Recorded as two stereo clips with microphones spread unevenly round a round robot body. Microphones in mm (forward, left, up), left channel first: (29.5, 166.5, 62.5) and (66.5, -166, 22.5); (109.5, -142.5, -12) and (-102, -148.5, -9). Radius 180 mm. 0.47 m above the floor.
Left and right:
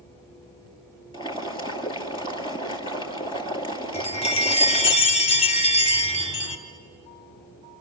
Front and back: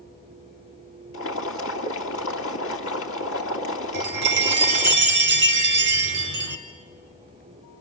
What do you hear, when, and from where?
1.1 s boiling: 20° left, 2 m
3.9 s a chime: 170° left, 1.3 m